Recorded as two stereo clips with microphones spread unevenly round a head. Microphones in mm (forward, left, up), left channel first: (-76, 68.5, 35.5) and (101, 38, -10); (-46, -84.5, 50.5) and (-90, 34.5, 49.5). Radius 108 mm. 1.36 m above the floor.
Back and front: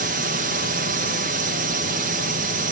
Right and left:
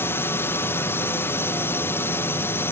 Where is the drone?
5° left.